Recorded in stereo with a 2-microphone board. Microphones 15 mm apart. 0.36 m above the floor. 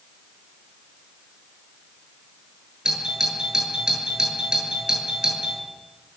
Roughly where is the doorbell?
Right.